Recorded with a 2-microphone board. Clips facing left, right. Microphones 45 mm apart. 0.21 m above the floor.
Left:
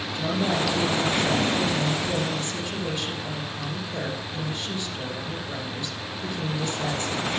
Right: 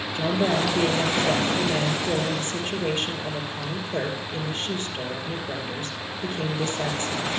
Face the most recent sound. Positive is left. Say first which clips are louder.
# right 2 dB
turn(degrees=-40)  # may be behind; listen again after turning